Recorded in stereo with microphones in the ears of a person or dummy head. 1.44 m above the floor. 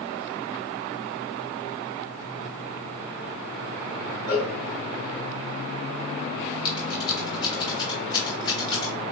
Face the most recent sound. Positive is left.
turn(degrees=25)  # may be behind; listen again after turning